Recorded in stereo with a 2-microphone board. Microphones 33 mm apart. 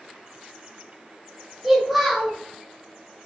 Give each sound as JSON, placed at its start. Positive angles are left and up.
{"t": 1.6, "sound": "a child speaking", "side_deg": -5, "distance_m": 0.9}